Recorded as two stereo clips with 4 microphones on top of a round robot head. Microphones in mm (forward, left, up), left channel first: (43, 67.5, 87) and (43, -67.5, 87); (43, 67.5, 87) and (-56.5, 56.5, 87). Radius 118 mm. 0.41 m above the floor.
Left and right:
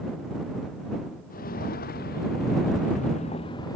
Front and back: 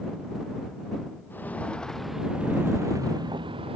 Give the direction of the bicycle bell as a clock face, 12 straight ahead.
I don't hear a bicycle bell.